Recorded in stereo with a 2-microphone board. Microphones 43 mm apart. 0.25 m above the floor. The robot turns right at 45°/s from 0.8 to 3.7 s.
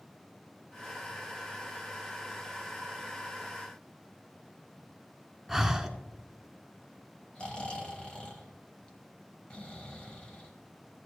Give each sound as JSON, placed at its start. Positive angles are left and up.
{"t": 5.5, "sound": "breathing", "side_deg": -5, "distance_m": 0.7}
{"t": 7.3, "sound": "snoring", "side_deg": 25, "distance_m": 1.2}